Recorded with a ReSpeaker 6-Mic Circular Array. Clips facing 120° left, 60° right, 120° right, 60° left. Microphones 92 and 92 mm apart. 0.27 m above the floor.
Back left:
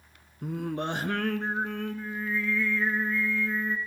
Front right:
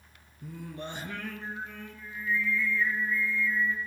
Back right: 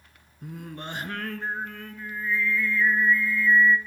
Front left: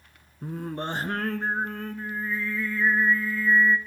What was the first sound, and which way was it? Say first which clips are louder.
Singing: back left 9 dB, front left 6 dB; 110° left.